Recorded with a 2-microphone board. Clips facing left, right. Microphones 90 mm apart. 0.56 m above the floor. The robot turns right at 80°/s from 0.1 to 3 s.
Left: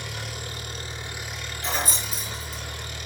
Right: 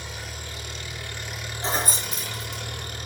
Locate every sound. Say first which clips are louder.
0.0 s an engine running: left 2 dB; 85° left, 5.5 m; by 3.1 s 45° right, 5.5 m
1.6 s keys jangling: right 2 dB; 35° right (ahead or behind), 5.5 m; by 2.6 s 65° right (ahead or behind), 5.5 m